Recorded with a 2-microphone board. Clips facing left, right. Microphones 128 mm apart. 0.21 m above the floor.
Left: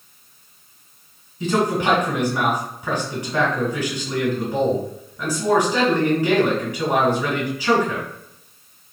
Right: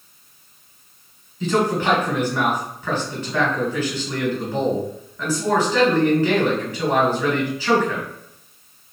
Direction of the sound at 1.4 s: 15° left (ahead or behind).